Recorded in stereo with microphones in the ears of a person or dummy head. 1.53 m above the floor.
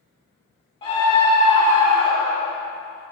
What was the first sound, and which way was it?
A scream, 25° left (ahead or behind).